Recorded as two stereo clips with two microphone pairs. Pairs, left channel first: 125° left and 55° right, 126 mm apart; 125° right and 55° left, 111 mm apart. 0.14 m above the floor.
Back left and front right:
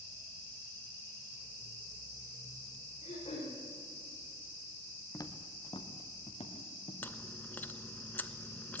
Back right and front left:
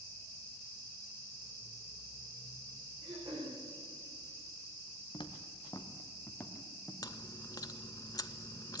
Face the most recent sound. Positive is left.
turn(degrees=-160)